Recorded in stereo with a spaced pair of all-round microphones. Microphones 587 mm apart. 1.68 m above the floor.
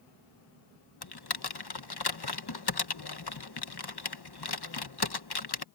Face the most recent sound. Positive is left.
turn(degrees=40)  # may be behind; listen again after turning